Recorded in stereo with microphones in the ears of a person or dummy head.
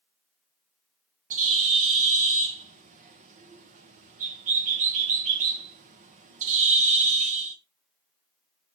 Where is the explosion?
No explosion in this recording.